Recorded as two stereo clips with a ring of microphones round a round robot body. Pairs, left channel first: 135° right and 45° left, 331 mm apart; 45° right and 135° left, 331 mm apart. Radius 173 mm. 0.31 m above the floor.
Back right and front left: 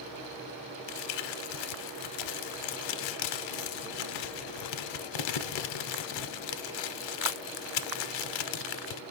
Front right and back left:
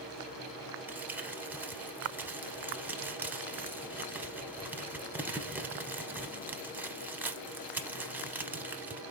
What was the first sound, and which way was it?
Crumpling, 140° right.